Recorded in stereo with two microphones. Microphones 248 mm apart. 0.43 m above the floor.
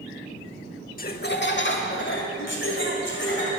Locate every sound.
1.0 s laughter: 40° left (ahead or behind), 0.9 m; by 3.5 s 55° left (ahead or behind), 3 m